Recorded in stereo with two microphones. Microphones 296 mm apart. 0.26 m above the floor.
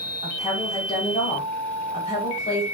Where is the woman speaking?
25° left (ahead or behind), 1.5 m.